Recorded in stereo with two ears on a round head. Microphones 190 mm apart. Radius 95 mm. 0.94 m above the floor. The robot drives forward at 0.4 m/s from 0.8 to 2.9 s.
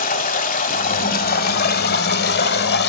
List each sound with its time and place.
0.0 s running water: 40° left (ahead or behind), 1.2 m; by 2.9 s 45° left (ahead or behind), 1.0 m